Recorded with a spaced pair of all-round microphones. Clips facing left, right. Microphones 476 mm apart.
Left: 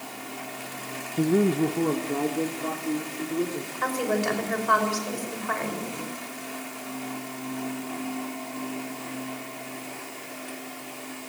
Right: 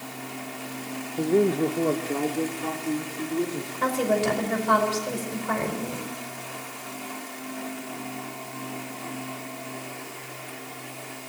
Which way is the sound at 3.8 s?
55° right (ahead or behind).